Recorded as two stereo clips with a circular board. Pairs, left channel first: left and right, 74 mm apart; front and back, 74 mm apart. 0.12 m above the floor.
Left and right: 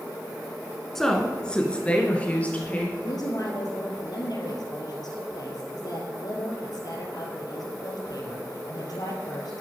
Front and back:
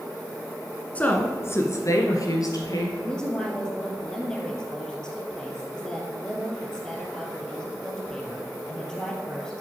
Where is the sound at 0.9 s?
15° left, 1.2 m; by 2.9 s 25° left, 2.5 m.